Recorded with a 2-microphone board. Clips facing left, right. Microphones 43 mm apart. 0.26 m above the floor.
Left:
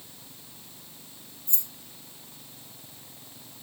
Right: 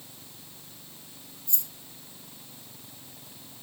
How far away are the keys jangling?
About 2 m.